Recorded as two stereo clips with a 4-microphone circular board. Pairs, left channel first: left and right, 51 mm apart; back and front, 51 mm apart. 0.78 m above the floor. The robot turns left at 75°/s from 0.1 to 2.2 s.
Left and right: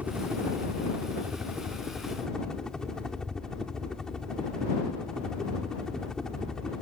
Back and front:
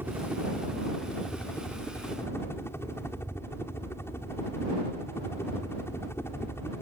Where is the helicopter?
35° right; by 6.8 s 165° left.